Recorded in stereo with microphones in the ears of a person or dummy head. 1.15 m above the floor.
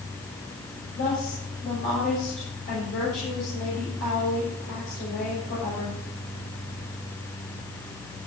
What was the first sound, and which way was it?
A woman speaking, 55° left (ahead or behind).